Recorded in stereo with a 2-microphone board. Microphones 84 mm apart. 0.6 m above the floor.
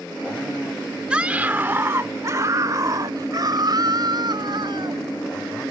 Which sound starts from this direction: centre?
A scream, at 1.1 s.